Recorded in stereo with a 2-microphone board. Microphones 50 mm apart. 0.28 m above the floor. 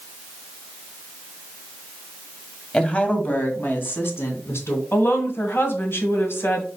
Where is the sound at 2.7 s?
20° left (ahead or behind), 1.3 m; by 4.8 s 60° left (ahead or behind), 2.5 m.